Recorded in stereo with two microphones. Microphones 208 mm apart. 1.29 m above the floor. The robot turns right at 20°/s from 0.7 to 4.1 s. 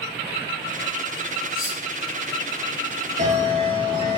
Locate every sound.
1.5 s cutlery clinking: 5° right (ahead or behind), 1.7 m; by 1.8 s centre (ahead or behind), 1.7 m
3.2 s a bell: 35° right (ahead or behind), 1.1 m; by 4.2 s 20° right (ahead or behind), 1.1 m